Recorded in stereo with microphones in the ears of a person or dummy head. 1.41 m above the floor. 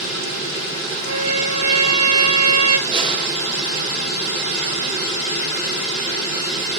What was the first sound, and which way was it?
A trumpet, 30° right (ahead or behind).